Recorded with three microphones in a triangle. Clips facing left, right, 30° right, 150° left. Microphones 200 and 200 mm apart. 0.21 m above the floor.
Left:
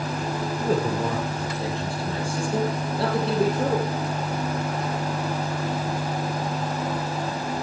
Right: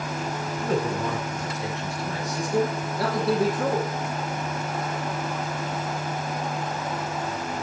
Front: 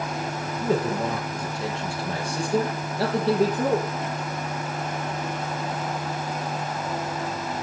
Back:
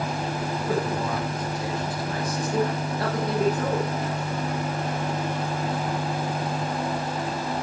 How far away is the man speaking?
About 4 m.